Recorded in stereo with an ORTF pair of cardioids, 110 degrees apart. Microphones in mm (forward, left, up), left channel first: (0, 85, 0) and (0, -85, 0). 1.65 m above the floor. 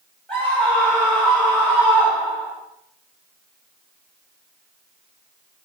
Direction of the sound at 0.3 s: 5° left.